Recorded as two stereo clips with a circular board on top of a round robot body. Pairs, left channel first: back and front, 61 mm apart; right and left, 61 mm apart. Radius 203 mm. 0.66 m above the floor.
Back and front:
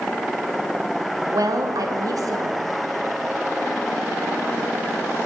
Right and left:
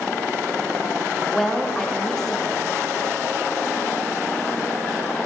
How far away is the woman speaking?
About 1.2 m.